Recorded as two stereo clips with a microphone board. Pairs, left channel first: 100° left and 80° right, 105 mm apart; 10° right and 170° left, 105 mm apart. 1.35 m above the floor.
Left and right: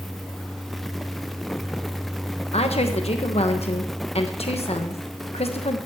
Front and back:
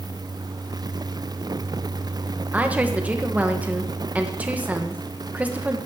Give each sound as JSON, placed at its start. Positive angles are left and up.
{"t": 2.5, "sound": "a woman speaking", "azimuth_deg": 95, "distance_m": 1.2}